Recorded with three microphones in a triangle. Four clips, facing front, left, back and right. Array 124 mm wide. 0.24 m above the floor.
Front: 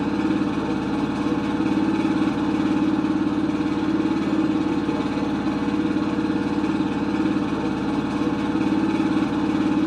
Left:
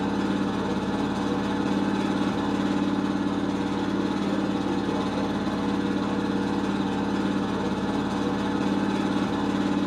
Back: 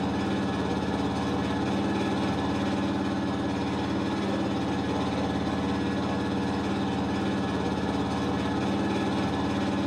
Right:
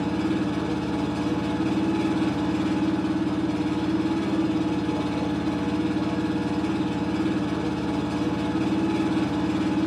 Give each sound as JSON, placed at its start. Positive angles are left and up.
{"t": 0.0, "sound": "an engine running", "azimuth_deg": 10, "distance_m": 0.8}